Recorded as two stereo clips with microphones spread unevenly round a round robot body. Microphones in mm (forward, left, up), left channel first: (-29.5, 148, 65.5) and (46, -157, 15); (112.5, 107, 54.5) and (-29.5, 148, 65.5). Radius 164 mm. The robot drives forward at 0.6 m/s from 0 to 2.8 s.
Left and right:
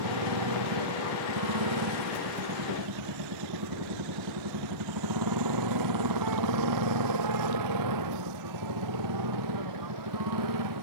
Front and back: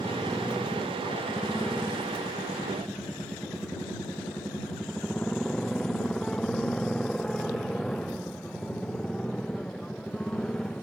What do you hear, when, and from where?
0.0 s a motorcycle: 100° right; by 10.8 s 105° right